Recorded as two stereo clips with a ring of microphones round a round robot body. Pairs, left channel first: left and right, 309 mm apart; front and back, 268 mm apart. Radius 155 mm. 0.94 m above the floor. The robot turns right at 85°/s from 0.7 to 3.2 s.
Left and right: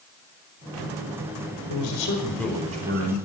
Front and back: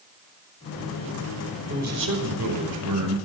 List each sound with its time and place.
1.7 s a man speaking: 115° left, 4.5 m; by 3.1 s 125° right, 4.5 m